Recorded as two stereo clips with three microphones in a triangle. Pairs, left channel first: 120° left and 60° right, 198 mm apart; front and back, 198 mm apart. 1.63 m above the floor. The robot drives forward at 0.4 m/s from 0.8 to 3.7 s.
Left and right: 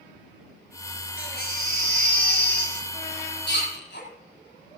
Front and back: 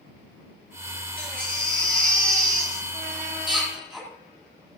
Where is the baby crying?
85° left, 8 m; by 4.1 s 95° left, 8 m.